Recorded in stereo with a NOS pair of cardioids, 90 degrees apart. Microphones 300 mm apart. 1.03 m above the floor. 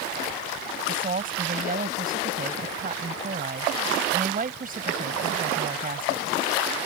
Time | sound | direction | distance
0.9 | a woman speaking | 30° right | ?